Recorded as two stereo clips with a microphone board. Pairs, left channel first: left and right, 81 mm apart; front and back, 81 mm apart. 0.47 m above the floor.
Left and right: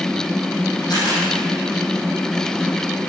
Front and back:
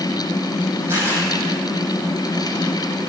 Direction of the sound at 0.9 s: 120° left.